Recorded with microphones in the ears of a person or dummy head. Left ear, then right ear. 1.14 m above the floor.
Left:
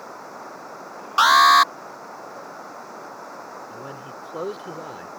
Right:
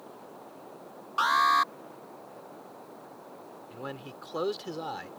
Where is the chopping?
I don't hear chopping.